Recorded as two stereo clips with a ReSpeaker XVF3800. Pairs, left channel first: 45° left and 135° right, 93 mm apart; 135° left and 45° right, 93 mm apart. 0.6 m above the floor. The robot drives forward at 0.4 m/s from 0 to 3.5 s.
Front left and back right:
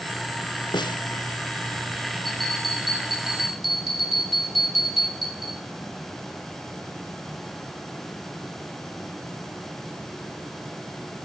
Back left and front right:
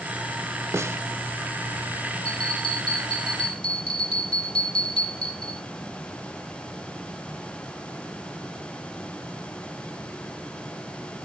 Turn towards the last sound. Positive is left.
turn(degrees=140)